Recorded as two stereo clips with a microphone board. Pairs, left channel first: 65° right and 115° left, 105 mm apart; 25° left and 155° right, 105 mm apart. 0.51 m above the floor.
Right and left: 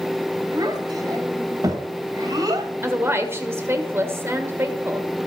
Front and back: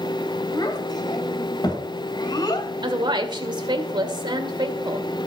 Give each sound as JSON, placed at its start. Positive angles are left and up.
{"t": 0.5, "sound": "a child speaking", "azimuth_deg": 65, "distance_m": 2.0}
{"t": 2.8, "sound": "a woman speaking", "azimuth_deg": 175, "distance_m": 1.9}